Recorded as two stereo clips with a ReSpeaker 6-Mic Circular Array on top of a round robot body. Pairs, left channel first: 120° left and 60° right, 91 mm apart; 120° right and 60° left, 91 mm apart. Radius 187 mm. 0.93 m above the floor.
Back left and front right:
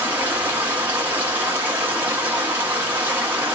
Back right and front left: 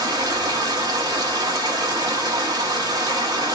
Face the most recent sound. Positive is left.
turn(degrees=10)